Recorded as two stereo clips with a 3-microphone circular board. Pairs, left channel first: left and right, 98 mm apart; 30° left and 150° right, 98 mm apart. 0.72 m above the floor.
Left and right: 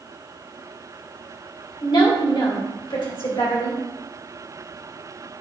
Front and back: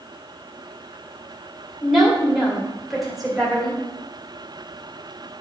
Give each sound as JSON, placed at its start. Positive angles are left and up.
{"t": 1.8, "sound": "a woman speaking", "azimuth_deg": 125, "distance_m": 2.0}